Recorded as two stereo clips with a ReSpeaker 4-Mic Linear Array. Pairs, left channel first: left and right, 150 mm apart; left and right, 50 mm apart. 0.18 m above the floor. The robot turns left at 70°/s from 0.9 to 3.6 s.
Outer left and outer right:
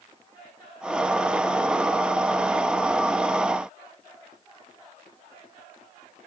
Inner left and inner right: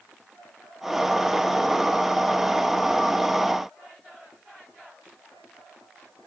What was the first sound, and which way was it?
Only background noise.